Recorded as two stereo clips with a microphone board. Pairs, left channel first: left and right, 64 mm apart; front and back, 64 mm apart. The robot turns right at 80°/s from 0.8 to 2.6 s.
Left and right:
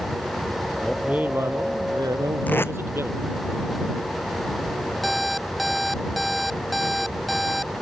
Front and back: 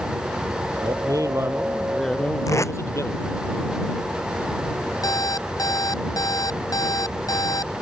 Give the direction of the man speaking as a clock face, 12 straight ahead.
6 o'clock.